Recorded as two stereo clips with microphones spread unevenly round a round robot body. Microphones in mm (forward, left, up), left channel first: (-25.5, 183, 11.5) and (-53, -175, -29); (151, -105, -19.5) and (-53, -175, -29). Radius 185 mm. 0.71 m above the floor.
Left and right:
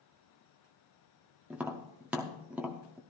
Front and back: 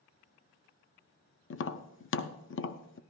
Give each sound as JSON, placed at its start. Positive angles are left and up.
{"t": 1.5, "sound": "tapping", "azimuth_deg": -10, "distance_m": 0.6}